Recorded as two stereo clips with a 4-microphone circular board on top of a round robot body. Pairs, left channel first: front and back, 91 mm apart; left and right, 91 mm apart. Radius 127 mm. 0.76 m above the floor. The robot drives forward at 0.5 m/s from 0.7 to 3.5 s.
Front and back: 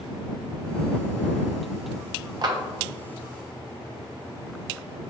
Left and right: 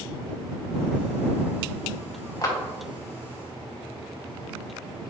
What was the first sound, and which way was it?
A clap, 140° left.